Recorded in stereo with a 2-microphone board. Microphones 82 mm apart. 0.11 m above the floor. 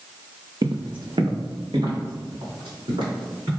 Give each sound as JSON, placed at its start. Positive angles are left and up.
{"t": 0.6, "sound": "footsteps", "side_deg": -50, "distance_m": 0.5}